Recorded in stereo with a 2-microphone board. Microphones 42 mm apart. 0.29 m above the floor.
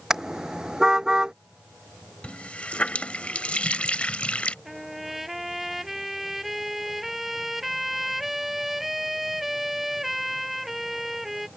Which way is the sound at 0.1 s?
10° right (ahead or behind).